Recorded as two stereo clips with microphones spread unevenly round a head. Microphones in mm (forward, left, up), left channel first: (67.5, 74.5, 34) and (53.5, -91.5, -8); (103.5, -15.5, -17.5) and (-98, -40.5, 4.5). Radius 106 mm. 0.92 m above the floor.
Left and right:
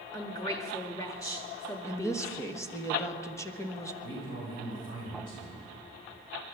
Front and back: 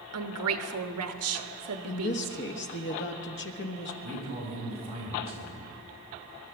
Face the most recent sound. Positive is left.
turn(degrees=125)